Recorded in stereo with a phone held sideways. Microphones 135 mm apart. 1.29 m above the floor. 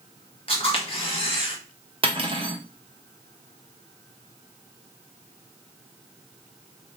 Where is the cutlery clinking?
40° right (ahead or behind), 0.6 m.